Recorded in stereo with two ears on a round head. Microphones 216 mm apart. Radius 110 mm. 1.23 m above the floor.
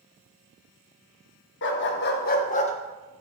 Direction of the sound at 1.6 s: 50° left (ahead or behind).